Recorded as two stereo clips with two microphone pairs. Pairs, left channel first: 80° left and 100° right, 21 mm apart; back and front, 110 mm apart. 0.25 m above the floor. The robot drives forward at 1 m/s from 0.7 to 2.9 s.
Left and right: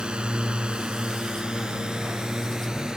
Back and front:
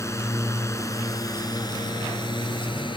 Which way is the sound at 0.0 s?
125° right.